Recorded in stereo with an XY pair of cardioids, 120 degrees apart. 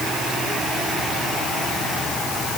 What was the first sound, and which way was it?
Only background noise.